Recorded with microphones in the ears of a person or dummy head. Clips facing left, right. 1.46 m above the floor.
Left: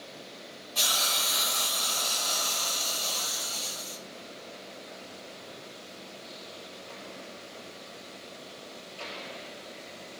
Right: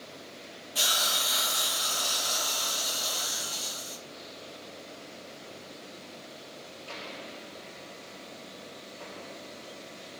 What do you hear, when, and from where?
0.8 s a hiss: 5° right (ahead or behind), 0.6 m